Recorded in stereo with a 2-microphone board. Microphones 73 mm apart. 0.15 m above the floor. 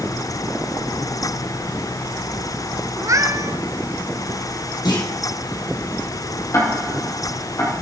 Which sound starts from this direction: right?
A cat meowing, at 3.0 s.